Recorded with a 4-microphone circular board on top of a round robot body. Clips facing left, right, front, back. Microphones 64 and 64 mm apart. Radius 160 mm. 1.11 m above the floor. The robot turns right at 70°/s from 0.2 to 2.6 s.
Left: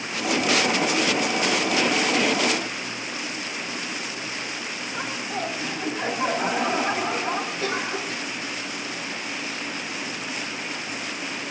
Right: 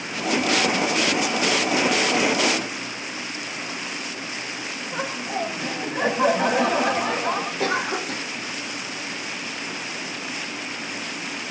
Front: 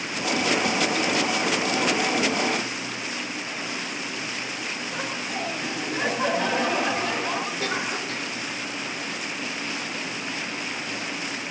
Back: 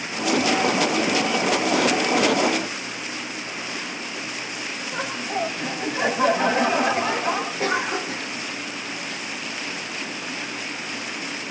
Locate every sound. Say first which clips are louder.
4.9 s laughter: right 3 dB, back 6 dB; 105° right, 8 m
7.6 s a cough: right 3 dB, back 4 dB; 115° right, 1.8 m